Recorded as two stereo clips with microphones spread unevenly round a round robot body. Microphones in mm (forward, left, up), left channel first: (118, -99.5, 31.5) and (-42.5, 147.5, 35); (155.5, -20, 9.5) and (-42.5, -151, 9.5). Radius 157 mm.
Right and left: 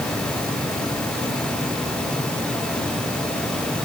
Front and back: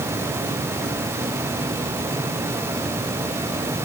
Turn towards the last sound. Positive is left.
No sound to turn to.